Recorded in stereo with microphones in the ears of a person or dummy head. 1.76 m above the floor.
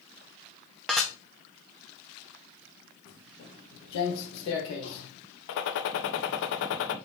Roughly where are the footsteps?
Left.